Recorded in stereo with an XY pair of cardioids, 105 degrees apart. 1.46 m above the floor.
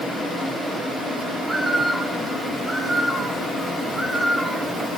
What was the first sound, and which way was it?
A bird, 15° right.